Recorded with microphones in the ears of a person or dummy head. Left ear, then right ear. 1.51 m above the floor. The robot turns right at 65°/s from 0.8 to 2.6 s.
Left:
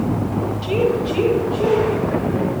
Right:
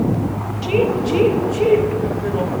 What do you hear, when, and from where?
0.6 s a woman speaking: 10° right (ahead or behind), 1.2 m; by 2.5 s 55° right (ahead or behind), 1.2 m